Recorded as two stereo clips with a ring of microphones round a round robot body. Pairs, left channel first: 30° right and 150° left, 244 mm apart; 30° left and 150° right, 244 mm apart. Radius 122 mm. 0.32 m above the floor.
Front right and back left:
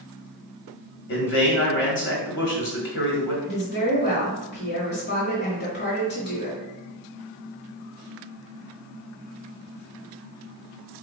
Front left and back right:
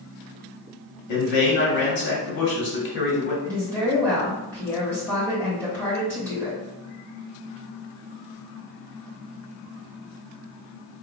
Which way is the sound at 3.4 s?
50° right.